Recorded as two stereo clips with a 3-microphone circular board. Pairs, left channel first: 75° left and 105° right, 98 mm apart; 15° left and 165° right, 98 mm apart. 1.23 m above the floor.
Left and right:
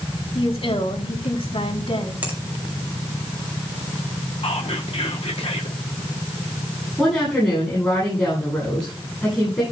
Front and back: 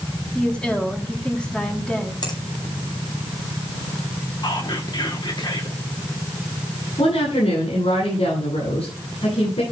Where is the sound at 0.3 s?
95° left, 3.5 m.